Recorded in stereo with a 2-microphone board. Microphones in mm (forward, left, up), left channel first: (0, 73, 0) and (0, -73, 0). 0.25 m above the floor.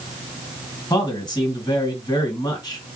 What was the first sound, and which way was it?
A man speaking, 30° left (ahead or behind).